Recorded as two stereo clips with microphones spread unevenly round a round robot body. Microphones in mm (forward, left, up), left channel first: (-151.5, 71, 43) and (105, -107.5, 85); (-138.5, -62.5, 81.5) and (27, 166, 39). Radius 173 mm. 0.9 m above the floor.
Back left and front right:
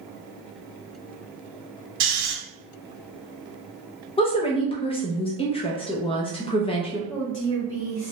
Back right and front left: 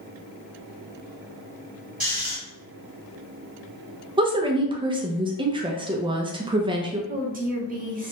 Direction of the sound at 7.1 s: 105° left.